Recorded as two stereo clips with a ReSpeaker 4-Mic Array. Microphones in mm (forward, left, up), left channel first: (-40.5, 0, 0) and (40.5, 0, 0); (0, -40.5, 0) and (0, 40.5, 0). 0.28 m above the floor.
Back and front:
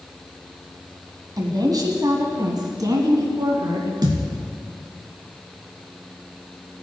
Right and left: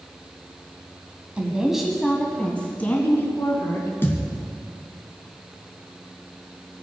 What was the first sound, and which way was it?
A woman speaking, 15° left.